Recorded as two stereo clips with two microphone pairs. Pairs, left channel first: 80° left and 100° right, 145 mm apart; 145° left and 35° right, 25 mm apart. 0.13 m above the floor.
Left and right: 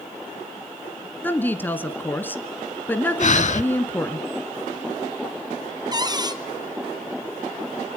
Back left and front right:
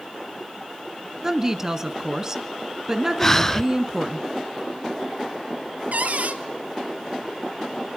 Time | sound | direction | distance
1.2 | a woman speaking | 15° left | 1.4 m
3.2 | breathing | 75° left | 0.5 m
5.9 | a cupboard door | 45° right | 1.4 m